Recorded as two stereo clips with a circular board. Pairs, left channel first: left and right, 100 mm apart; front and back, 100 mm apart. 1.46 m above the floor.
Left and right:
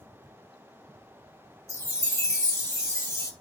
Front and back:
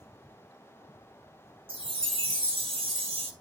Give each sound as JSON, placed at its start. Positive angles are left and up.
{"t": 1.7, "sound": "a chime", "azimuth_deg": 155, "distance_m": 0.9}